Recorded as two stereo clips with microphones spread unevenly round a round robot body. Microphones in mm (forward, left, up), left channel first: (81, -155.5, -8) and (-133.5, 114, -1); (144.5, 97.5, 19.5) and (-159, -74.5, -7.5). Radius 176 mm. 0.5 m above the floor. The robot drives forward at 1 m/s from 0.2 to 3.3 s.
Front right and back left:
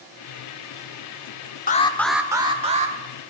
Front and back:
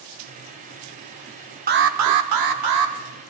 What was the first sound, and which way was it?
An alarm, 105° right.